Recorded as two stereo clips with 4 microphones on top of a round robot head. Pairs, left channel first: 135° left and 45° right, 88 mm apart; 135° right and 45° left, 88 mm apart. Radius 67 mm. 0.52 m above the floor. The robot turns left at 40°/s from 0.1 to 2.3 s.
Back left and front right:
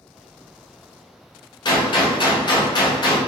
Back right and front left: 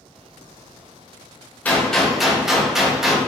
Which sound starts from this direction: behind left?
A gunshot, at 1.6 s.